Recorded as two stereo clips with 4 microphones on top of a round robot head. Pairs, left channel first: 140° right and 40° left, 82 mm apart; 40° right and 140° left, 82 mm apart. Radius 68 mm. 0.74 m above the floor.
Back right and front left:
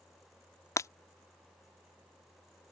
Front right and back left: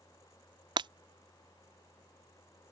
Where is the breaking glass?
165° left.